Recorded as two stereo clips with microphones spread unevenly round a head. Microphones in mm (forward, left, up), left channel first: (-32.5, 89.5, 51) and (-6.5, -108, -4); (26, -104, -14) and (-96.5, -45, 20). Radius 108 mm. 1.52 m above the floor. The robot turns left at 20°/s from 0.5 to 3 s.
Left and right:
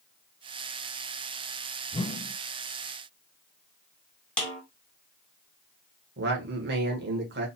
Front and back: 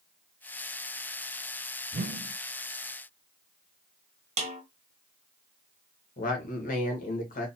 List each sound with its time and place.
1.9 s a whoosh: 165° left, 0.6 m; by 2.4 s 160° left, 0.6 m
4.4 s a snare drum: 175° left, 1.5 m
6.2 s a man speaking: 40° right, 1.7 m